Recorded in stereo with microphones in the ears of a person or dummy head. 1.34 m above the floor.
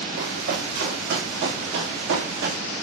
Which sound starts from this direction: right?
Running footsteps, at 0.2 s.